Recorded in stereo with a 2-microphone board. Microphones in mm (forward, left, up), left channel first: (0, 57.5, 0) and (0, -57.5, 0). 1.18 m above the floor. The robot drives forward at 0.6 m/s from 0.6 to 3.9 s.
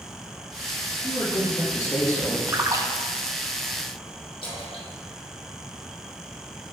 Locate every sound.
1.0 s a man speaking: 40° left (ahead or behind), 1.4 m; by 2.4 s 25° left (ahead or behind), 2 m
2.5 s a splash: 25° right (ahead or behind), 0.5 m
4.4 s a splash: 40° left (ahead or behind), 1.3 m